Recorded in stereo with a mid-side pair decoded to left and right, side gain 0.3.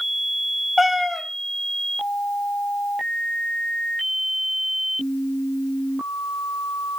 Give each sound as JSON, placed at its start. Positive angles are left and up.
{"t": 0.8, "sound": "a cat meowing", "azimuth_deg": 25, "distance_m": 2.5}